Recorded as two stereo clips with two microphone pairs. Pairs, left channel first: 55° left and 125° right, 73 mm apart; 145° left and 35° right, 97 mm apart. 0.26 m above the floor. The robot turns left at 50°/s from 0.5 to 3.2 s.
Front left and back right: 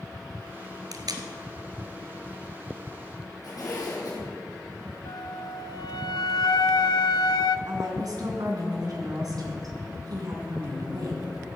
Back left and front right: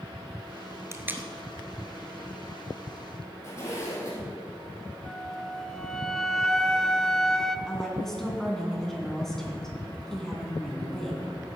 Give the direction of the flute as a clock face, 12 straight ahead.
10 o'clock.